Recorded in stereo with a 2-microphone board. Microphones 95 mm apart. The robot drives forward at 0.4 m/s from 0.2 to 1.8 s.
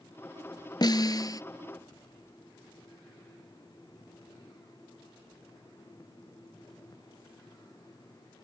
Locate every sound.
0.8 s a snare drum: 45° left (ahead or behind); by 1.4 s 40° left (ahead or behind)